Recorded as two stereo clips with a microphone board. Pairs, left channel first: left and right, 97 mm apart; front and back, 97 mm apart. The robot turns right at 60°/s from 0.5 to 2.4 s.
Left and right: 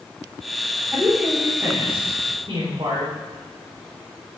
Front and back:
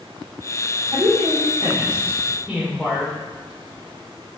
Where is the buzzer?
I don't hear a buzzer.